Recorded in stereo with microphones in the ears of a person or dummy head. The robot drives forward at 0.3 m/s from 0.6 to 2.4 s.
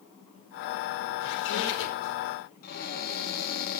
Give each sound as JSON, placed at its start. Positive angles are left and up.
{"t": 1.2, "sound": "a squeak", "side_deg": 75, "distance_m": 4.5}
{"t": 2.6, "sound": "a cupboard door", "side_deg": 55, "distance_m": 4.0}